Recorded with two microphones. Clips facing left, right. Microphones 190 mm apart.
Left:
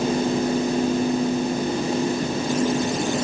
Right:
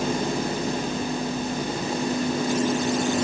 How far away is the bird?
No bird in this recording.